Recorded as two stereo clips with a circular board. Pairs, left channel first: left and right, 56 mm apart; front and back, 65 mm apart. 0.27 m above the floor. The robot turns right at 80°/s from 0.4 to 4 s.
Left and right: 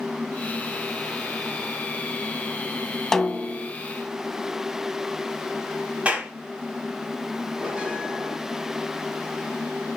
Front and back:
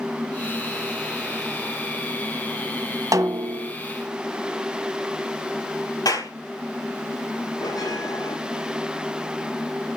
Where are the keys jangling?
I don't hear keys jangling.